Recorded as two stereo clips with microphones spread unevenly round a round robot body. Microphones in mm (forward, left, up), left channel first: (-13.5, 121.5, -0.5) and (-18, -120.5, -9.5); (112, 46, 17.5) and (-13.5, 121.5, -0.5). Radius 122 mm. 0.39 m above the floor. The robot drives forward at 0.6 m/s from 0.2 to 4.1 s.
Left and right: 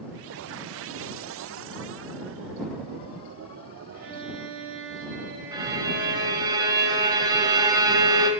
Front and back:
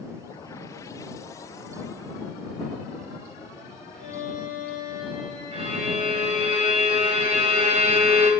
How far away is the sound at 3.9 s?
About 5.5 m.